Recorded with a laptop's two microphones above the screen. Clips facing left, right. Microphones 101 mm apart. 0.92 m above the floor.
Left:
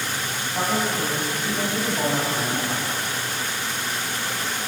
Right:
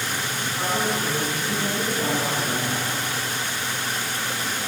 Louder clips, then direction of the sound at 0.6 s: Left 2 dB; 65° left (ahead or behind).